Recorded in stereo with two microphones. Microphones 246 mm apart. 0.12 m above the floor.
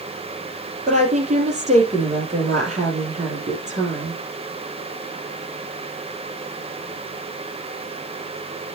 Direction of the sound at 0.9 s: 30° right (ahead or behind).